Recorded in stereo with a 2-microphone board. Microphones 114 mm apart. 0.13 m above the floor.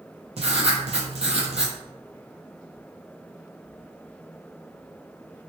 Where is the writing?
65° right (ahead or behind), 0.7 m.